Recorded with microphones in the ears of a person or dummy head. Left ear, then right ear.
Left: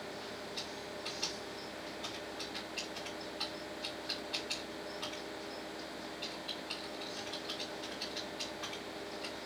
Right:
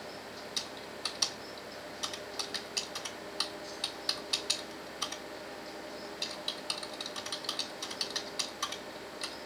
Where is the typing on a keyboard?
70° right (ahead or behind), 1.5 m.